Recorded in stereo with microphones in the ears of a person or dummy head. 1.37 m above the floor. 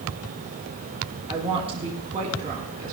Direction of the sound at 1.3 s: 30° right (ahead or behind).